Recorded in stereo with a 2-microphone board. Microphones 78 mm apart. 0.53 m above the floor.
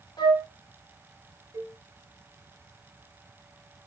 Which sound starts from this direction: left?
A flute, at 0.2 s.